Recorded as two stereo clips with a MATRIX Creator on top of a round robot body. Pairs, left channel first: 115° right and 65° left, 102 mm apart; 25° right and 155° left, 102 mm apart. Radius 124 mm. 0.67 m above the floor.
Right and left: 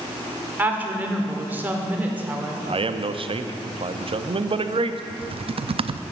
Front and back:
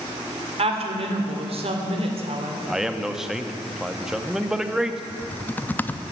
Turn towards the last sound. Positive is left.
turn(degrees=50)